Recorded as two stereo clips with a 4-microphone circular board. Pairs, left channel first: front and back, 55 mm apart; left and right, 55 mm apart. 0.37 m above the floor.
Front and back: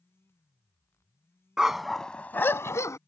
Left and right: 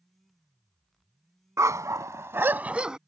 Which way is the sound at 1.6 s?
100° right.